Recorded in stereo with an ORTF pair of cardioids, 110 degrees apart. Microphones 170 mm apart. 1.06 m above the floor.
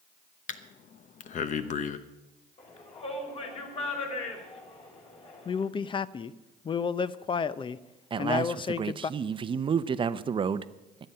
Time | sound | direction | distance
0.5 | breathing | 50° left | 1.0 m
2.6 | a shout | 35° left | 5.5 m
5.5 | a man speaking | 30° left | 0.7 m
8.1 | a man speaking | 30° right | 0.7 m